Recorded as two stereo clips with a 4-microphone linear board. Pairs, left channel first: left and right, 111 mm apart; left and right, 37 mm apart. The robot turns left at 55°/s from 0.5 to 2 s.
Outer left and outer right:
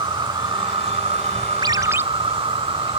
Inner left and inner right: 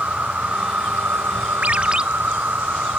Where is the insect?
45° right; by 3.0 s 125° right.